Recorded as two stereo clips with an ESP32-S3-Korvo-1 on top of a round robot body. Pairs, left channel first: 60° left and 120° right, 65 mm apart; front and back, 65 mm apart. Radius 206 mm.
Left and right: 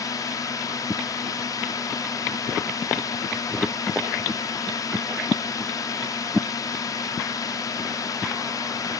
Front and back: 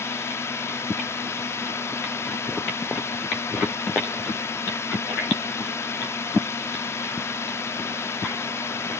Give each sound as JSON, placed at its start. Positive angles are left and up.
{"t": 0.0, "sound": "a drone", "azimuth_deg": 45}